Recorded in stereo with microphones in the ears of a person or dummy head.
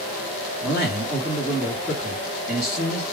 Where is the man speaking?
10° right (ahead or behind), 1.4 m.